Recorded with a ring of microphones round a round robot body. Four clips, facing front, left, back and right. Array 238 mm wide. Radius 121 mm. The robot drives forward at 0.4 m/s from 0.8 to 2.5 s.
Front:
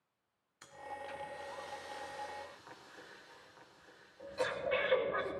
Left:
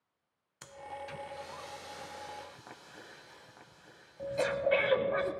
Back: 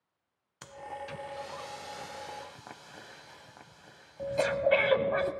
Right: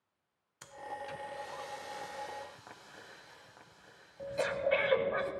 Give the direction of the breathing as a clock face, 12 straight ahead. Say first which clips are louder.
Right 1 dB, back 5 dB; 6 o'clock.